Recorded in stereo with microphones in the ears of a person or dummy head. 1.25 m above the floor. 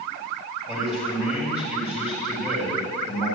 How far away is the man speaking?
About 4.5 m.